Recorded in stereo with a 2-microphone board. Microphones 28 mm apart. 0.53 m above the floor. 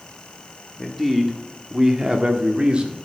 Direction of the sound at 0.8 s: Centre (ahead or behind).